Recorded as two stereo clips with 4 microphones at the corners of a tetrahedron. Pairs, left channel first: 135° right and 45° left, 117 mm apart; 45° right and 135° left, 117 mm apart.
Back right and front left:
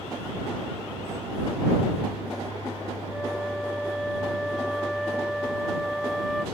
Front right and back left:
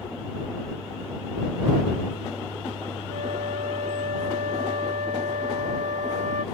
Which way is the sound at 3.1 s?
135° left.